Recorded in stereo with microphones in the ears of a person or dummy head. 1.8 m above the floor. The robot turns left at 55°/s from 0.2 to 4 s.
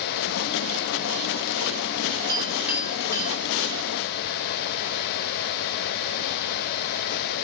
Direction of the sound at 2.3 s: 25° right (ahead or behind).